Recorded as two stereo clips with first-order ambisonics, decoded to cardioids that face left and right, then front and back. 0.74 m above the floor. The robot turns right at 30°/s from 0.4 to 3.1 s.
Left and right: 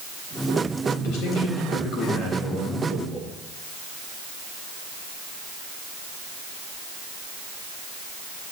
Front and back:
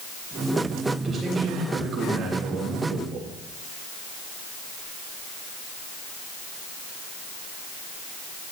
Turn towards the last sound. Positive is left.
turn(degrees=165)